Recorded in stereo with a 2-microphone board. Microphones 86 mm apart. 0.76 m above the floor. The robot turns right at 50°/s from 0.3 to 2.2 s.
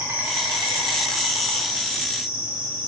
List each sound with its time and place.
0.0 s an insect: 150° right, 1.3 m; by 2.9 s 55° right, 1.3 m